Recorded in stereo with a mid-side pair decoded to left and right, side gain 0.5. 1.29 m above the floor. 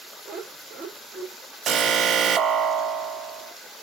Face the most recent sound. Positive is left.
turn(degrees=-55)